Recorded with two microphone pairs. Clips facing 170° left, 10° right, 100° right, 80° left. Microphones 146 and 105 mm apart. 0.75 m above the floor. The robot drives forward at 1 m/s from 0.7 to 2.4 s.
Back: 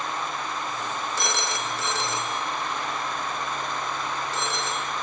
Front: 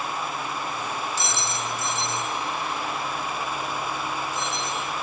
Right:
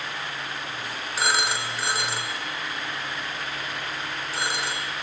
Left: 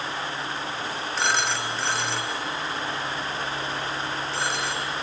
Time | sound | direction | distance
1.2 | a phone ringing | straight behind | 0.7 m